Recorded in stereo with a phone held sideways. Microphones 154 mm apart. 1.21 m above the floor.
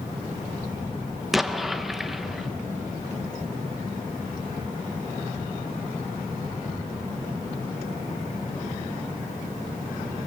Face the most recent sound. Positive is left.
turn(degrees=0)  # may be behind; listen again after turning